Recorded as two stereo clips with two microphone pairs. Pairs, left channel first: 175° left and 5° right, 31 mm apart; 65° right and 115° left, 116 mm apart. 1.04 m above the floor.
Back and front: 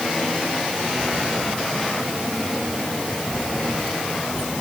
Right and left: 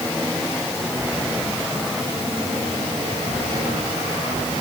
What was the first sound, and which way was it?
Only background noise.